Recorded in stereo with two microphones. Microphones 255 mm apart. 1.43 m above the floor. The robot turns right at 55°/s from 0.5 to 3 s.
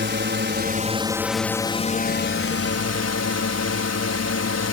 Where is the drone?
45° right; by 4.7 s 90° left.